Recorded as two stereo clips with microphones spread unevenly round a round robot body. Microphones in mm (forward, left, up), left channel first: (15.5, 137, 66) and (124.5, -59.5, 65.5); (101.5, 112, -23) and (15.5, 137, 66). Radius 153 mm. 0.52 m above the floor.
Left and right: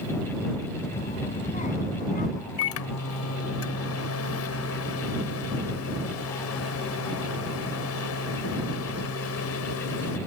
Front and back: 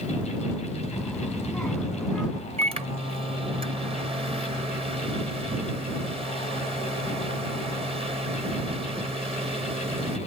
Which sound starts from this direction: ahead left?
A child speaking, at 0.9 s.